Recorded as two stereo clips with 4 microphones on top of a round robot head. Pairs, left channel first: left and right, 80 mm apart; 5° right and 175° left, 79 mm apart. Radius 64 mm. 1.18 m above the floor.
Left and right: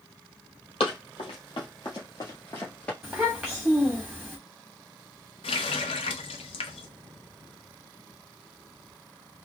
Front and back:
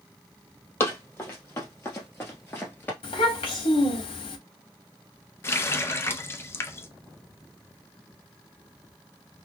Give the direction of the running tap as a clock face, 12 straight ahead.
10 o'clock.